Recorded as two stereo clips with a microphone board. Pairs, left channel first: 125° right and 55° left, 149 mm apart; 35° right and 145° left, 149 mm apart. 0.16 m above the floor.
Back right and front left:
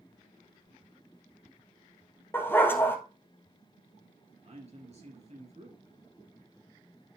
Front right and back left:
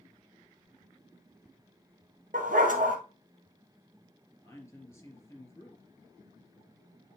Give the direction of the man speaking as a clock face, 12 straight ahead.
11 o'clock.